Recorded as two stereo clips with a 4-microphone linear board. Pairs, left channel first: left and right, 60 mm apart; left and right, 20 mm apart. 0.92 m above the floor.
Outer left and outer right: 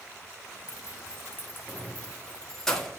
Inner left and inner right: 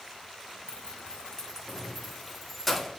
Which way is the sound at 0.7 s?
65° left (ahead or behind).